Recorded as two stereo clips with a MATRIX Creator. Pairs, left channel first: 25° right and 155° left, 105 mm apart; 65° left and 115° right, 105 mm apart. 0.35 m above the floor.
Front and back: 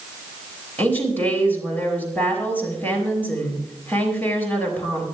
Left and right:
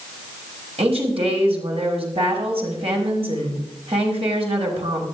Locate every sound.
0.8 s a woman speaking: 95° right, 5.5 m